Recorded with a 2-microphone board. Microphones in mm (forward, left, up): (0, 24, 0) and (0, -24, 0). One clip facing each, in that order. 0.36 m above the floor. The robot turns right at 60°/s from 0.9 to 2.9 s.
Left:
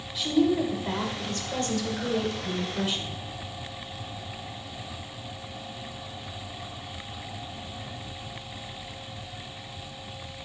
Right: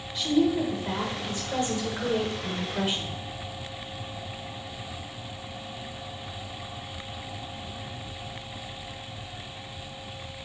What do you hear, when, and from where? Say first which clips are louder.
0.1 s a woman speaking: even; centre (ahead or behind), 0.9 m; by 3.1 s 25° right (ahead or behind), 0.9 m